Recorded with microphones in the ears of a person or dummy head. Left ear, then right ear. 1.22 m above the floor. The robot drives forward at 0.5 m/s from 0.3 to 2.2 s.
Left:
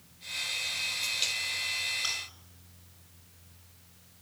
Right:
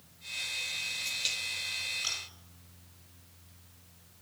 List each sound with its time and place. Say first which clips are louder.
2.0 s chewing: left 1 dB; 5° left (ahead or behind), 7.5 m